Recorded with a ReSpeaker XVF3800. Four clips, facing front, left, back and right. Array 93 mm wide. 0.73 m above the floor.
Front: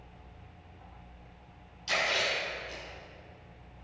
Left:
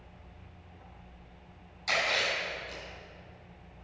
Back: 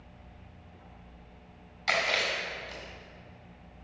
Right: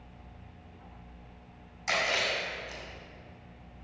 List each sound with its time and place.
1.9 s chewing: 160° right, 4 m